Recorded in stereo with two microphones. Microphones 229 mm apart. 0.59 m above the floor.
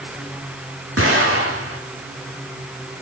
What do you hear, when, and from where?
1.0 s an explosion: 85° right, 9 m